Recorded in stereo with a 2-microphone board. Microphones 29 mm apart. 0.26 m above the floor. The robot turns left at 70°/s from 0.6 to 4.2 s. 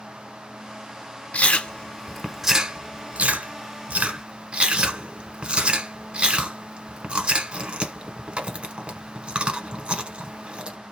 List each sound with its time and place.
1.3 s chewing: 55° left (ahead or behind), 1.1 m; by 10.8 s 40° right (ahead or behind), 1.1 m